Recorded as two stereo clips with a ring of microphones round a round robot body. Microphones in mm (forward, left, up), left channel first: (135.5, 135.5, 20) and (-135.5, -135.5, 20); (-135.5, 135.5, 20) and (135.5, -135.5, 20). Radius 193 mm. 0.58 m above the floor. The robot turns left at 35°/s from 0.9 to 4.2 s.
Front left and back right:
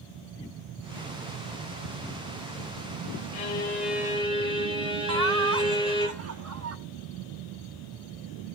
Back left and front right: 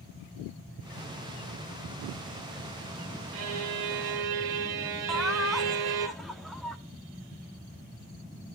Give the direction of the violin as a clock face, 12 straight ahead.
1 o'clock.